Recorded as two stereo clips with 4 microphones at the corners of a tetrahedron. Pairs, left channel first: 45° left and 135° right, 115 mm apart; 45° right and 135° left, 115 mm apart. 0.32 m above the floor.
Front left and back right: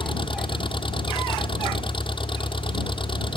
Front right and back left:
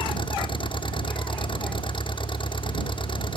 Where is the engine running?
Straight ahead.